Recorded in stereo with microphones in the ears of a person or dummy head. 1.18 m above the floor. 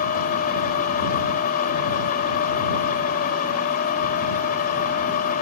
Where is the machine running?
50° left (ahead or behind).